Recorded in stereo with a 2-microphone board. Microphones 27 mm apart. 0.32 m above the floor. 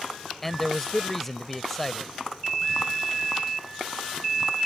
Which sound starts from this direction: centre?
A man speaking, at 0.4 s.